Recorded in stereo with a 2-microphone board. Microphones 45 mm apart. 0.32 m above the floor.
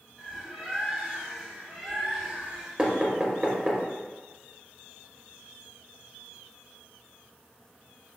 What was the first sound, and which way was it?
A bird, 10° right (ahead or behind).